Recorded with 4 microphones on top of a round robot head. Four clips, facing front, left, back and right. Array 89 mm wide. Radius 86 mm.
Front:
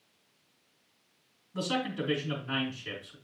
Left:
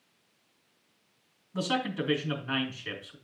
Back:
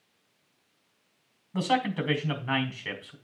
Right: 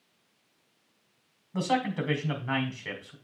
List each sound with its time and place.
1.5 s a man speaking: 145° right, 3 m